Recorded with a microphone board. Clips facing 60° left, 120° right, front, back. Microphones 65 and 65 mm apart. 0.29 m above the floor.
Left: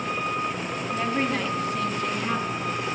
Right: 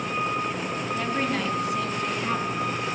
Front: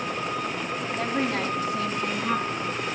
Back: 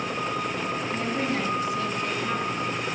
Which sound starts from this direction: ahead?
A woman speaking, at 0.9 s.